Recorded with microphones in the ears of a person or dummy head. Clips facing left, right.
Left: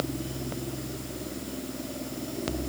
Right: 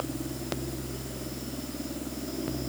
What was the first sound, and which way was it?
Only background noise.